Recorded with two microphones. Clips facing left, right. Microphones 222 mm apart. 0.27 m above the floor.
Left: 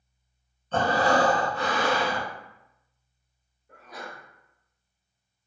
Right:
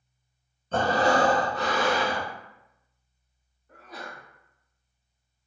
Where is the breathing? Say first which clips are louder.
Even; 40° right (ahead or behind), 0.8 m.